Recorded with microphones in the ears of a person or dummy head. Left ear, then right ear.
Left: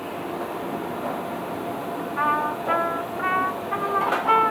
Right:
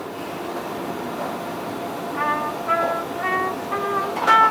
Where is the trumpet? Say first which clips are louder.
Left 1 dB; centre (ahead or behind), 0.5 m.